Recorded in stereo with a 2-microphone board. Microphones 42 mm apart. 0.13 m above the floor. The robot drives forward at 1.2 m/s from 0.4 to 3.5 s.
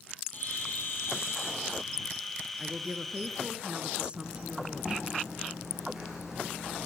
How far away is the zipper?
About 8.5 m.